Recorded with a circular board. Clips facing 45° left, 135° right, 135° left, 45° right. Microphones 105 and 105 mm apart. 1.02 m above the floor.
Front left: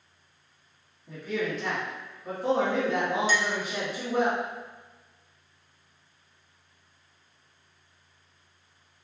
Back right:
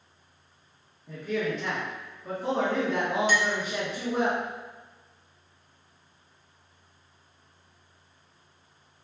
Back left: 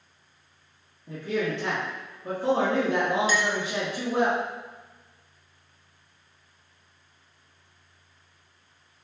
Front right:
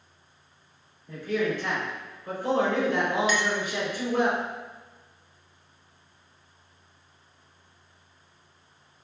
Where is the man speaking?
130° left, 1.4 m.